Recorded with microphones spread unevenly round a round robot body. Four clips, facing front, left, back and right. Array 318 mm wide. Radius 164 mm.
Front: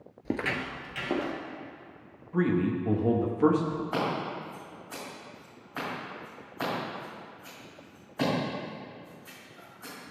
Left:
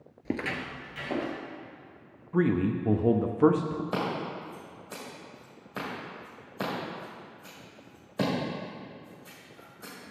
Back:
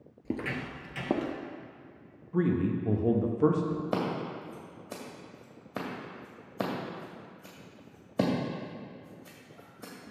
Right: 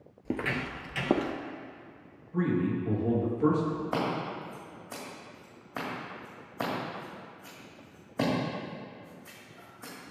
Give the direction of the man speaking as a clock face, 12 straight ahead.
10 o'clock.